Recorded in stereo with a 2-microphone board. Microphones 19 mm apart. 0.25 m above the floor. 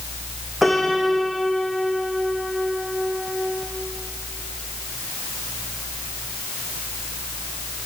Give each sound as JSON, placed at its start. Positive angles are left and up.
{"t": 0.6, "sound": "a piano", "side_deg": -10, "distance_m": 6.0}